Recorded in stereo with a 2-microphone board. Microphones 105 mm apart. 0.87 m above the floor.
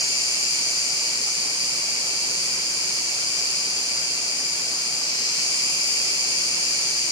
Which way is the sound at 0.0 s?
40° left (ahead or behind).